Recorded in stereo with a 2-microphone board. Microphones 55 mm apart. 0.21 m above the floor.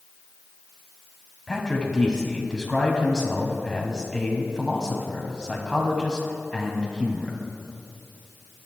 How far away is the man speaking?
About 1.5 m.